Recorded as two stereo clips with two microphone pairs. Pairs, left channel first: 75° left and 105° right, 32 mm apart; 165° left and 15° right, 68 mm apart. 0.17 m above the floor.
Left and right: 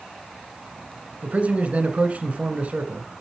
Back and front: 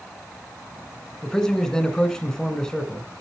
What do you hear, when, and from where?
1.2 s a man speaking: 120° right, 1.4 m